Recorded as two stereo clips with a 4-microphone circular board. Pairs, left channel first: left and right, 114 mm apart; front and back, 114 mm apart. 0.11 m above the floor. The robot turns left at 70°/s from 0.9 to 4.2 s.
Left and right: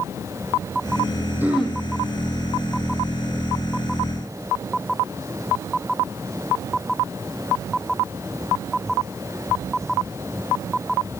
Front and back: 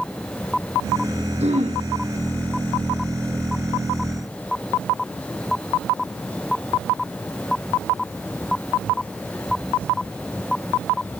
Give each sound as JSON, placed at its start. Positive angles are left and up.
{"t": 1.4, "sound": "throat clearing", "azimuth_deg": -165, "distance_m": 5.0}